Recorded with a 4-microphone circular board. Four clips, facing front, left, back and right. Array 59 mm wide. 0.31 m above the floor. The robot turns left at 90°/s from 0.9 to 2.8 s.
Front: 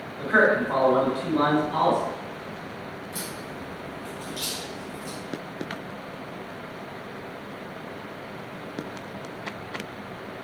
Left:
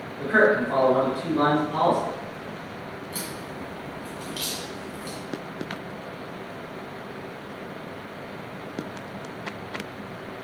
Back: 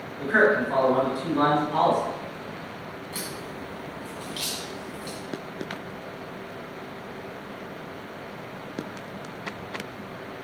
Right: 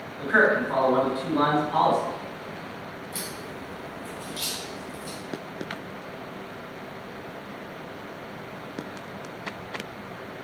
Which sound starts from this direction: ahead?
A man speaking, at 0.2 s.